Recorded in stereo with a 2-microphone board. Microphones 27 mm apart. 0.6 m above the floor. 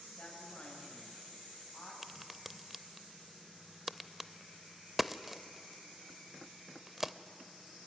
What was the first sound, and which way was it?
A woman speaking, 30° left (ahead or behind).